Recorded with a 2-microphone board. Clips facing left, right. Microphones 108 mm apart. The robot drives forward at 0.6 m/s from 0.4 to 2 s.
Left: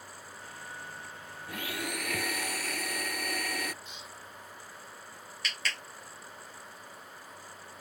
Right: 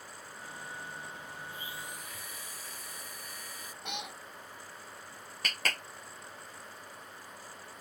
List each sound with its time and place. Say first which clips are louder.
1.5 s a blender: left 12 dB; 80° left; by 3.7 s 75° left (ahead or behind)
3.8 s a cat meowing: right 6 dB; 70° right (ahead or behind)
5.4 s a clap: right 2 dB; 45° right (ahead or behind)